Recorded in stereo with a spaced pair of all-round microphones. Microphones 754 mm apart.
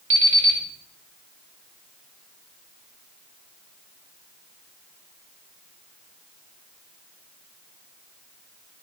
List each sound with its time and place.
0.1 s an alarm clock: 60° right (ahead or behind), 2.5 m